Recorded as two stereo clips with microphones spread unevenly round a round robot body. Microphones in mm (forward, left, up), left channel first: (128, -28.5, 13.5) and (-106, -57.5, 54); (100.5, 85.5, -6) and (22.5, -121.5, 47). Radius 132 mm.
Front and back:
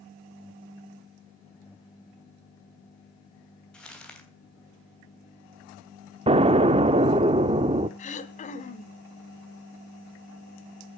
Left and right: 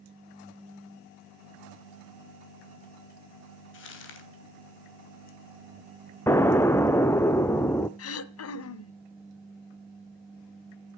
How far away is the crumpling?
About 3 m.